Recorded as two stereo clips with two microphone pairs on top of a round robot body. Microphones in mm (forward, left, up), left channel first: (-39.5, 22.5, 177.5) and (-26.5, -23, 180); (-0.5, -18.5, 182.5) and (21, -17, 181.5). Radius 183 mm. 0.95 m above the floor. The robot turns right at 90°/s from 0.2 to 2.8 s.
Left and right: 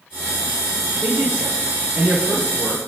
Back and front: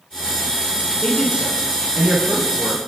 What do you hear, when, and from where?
1.0 s a man speaking: 90° right, 6.5 m; by 2.8 s 70° left, 6.5 m